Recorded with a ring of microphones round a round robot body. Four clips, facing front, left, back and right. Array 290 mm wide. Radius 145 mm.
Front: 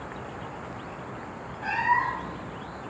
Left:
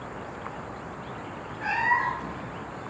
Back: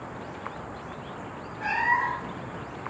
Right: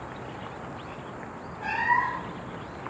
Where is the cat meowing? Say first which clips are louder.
Even, front 1 dB; 150° left, 1.9 m.